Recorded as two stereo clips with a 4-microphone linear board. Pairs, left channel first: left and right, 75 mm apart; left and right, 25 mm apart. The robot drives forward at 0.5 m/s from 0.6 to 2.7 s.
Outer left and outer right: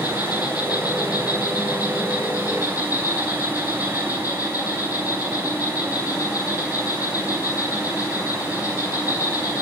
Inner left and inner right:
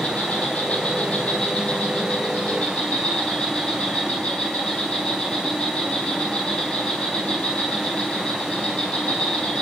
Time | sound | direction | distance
0.0 | an insect | 55° left (ahead or behind) | 3 m